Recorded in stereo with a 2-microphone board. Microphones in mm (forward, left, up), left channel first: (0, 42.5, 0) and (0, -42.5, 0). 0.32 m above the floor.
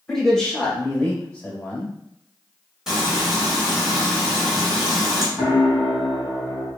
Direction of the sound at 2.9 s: 5° right (ahead or behind).